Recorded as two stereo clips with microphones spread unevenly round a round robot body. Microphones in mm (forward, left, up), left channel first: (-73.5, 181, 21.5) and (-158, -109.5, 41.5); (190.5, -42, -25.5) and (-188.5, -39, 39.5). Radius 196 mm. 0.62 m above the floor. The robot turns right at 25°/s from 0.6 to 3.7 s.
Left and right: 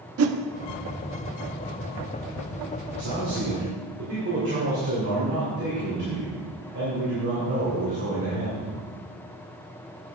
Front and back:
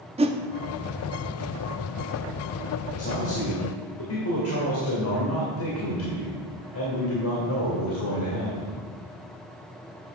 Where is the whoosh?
100° right, 0.6 m.